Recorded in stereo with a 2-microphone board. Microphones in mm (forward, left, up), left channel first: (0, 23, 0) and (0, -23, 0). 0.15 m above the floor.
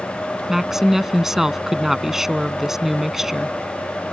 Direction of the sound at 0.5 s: 10° right (ahead or behind).